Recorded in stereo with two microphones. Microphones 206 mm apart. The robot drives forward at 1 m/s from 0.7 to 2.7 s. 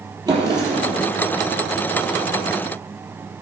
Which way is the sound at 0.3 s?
20° right (ahead or behind).